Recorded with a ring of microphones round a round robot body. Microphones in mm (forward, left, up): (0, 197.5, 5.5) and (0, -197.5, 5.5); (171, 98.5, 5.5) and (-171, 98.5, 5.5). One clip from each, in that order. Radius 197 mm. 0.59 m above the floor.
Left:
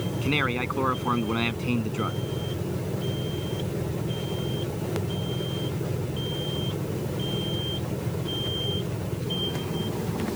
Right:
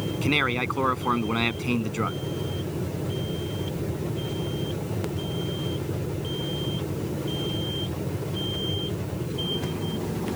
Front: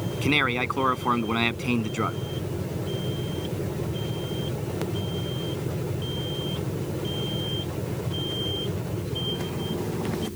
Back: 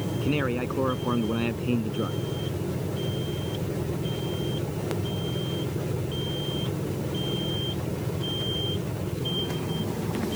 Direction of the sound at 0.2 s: 20° right.